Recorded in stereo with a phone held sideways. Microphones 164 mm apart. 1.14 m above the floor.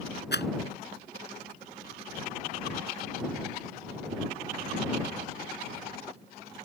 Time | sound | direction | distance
0.3 | a rattle | 90° left | ?